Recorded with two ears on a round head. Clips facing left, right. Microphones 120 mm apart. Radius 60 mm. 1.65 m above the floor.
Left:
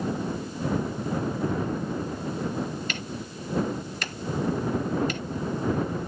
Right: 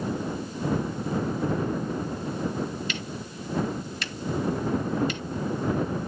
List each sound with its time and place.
2.9 s ticking: 40° left (ahead or behind)